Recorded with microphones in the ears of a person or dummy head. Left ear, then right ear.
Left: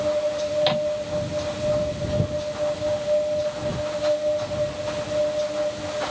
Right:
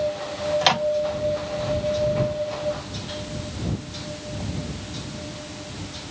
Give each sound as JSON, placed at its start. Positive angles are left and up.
{"t": 0.6, "sound": "a microwave", "side_deg": -40}